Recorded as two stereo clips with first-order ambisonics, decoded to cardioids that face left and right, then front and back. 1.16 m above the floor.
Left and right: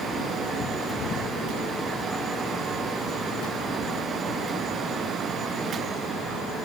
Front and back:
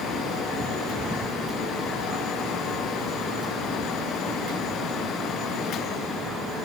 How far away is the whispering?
No whispering in this recording.